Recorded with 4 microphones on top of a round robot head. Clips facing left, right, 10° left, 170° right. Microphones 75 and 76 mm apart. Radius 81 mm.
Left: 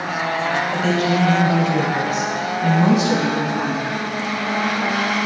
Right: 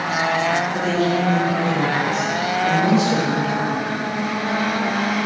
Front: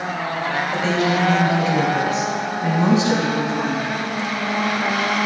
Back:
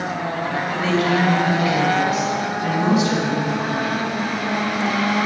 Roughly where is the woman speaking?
Left.